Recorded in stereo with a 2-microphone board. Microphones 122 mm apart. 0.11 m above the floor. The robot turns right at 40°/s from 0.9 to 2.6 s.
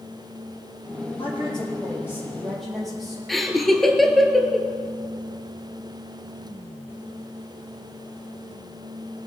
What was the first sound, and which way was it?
A woman speaking, 125° left.